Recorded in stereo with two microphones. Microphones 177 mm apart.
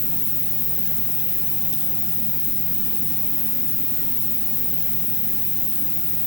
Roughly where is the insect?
Left.